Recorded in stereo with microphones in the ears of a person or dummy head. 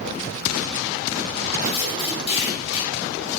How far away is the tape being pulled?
About 3 m.